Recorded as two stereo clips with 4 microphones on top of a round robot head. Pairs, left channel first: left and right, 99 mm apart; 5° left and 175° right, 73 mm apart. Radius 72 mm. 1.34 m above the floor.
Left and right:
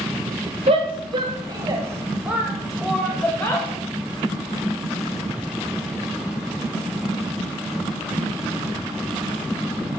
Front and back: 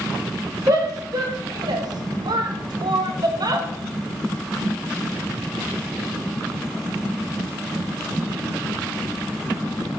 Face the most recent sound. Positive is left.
turn(degrees=160)